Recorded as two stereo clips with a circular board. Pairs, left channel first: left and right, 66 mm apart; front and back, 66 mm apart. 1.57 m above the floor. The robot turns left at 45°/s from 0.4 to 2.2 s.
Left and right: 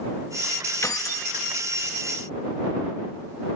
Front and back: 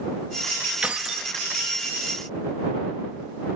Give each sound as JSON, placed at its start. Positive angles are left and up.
{"t": 0.8, "sound": "keys jangling", "azimuth_deg": 110}